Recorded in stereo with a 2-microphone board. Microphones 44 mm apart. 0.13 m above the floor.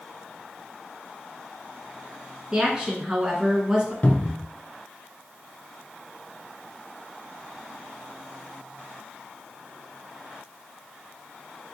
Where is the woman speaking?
20° right (ahead or behind), 1.2 m.